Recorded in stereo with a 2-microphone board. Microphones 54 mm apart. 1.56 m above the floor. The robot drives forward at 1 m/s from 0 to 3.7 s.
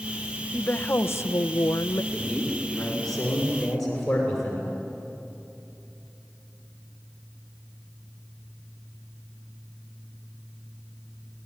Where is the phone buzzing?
No phone buzzing in this recording.